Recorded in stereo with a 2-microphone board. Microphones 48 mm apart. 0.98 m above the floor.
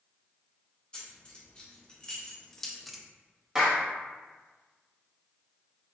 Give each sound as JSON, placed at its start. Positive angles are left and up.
{"t": 0.9, "sound": "keys jangling", "side_deg": 25, "distance_m": 2.0}
{"t": 3.5, "sound": "a clap", "side_deg": -10, "distance_m": 1.4}